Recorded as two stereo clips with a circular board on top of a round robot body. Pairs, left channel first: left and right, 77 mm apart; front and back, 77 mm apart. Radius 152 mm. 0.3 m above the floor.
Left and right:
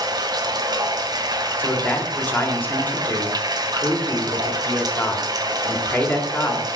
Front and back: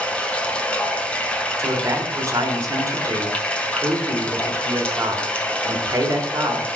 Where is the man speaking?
150° left, 2 m.